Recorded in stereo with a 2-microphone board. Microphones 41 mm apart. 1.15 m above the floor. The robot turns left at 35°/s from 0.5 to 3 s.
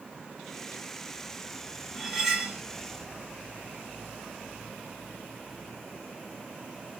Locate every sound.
1.9 s cutlery clinking: 5° left (ahead or behind), 1.5 m; by 2.6 s 15° right (ahead or behind), 1.5 m